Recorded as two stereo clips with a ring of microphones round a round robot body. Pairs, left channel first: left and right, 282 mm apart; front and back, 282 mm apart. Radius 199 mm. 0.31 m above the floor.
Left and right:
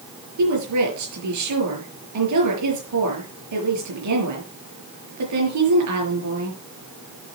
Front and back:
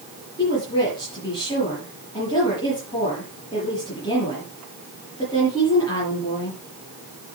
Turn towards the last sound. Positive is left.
turn(degrees=-80)